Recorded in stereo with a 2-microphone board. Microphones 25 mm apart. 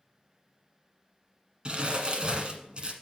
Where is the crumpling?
45° right (ahead or behind), 1.3 m.